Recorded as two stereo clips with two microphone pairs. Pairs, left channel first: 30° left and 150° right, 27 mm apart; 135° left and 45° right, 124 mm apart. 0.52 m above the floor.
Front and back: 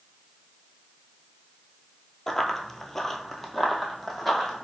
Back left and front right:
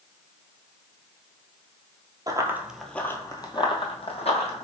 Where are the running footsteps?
30° right, 0.6 m; by 4.7 s 115° left, 1.1 m.